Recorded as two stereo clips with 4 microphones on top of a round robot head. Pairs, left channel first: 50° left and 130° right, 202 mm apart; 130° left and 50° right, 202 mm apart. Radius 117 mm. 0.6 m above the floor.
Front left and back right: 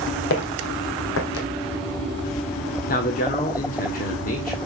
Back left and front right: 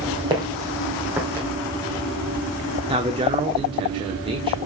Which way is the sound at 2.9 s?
10° left.